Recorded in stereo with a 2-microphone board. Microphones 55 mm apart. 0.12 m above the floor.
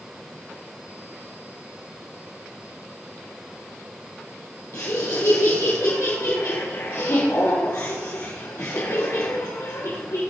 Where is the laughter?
70° left (ahead or behind), 4.5 m.